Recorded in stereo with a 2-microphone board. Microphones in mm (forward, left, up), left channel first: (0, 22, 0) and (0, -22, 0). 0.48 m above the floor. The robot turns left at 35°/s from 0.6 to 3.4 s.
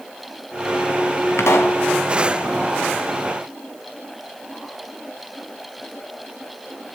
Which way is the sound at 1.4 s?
80° left.